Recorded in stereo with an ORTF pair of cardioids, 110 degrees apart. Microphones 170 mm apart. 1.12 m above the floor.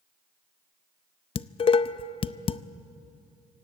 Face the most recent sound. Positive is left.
turn(degrees=35)